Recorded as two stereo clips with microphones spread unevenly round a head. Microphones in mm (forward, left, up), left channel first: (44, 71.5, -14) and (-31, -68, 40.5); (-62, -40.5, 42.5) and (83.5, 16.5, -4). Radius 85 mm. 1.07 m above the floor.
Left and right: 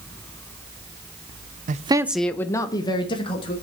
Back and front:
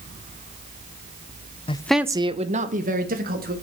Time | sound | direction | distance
1.7 | a man speaking | 105° right | 0.5 m